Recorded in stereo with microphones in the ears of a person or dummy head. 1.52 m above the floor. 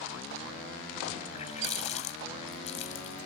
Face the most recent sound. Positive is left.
turn(degrees=35)  # may be behind; listen again after turning